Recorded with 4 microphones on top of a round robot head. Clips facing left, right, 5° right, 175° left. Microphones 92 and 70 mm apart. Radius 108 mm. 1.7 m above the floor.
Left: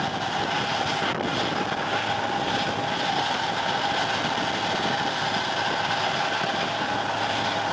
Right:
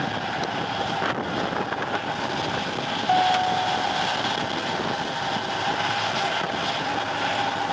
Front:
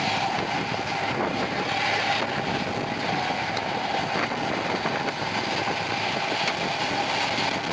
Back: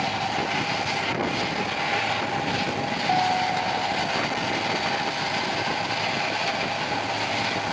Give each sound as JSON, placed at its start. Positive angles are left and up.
{"t": 3.1, "sound": "a guitar", "azimuth_deg": -120}